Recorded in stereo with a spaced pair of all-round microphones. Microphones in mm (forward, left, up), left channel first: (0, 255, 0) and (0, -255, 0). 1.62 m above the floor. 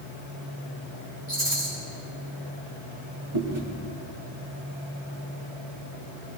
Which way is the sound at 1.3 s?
65° right (ahead or behind).